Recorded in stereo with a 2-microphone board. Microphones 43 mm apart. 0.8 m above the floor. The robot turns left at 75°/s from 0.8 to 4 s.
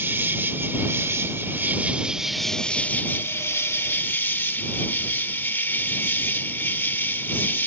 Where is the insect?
65° right; by 7.7 s 55° left.